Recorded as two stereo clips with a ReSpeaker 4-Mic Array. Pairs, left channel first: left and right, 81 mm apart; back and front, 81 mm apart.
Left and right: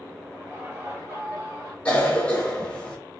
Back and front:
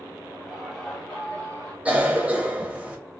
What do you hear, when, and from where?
0.3 s laughter: 55° right, 1.5 m; by 1.8 s 135° right, 1.9 m
1.9 s a cough: 40° left, 1.0 m